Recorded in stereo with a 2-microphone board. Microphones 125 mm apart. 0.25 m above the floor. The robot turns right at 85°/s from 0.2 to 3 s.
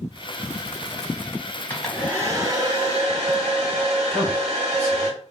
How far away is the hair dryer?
About 1.2 m.